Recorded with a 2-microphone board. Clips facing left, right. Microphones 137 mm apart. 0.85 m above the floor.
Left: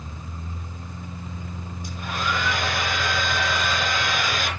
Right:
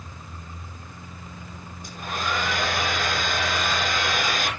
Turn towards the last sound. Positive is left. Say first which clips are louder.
# left 1 dB
turn(degrees=-50)  # may be behind; listen again after turning